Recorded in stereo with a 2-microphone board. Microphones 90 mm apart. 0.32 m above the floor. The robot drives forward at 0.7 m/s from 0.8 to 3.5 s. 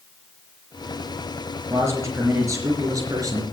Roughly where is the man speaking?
Right.